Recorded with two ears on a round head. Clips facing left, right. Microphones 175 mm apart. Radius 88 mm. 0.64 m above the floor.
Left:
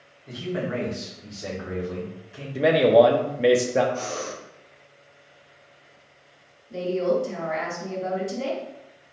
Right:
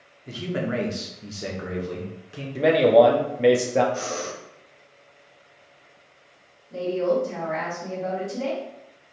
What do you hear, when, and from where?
0.3 s a man speaking: 35° right (ahead or behind), 1.0 m; by 2.5 s 65° right (ahead or behind), 1.4 m
2.5 s a man speaking: 5° left (ahead or behind), 0.5 m
3.9 s breathing: 70° right (ahead or behind), 1.2 m
6.7 s a woman speaking: 40° left (ahead or behind), 1.8 m